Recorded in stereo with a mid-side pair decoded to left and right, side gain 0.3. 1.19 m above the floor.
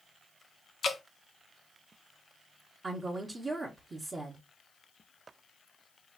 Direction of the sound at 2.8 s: 45° right.